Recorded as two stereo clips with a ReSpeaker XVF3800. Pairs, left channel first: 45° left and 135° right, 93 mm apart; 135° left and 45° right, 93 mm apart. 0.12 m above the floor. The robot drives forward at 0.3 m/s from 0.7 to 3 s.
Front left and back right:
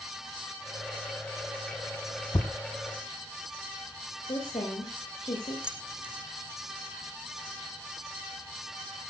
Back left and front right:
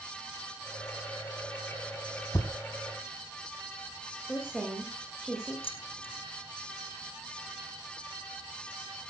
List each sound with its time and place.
2.3 s a thud: 85° left, 2.5 m; by 2.5 s 90° left, 2.5 m
4.2 s a woman speaking: 45° left, 9.5 m
5.6 s keys jangling: 145° left, 4 m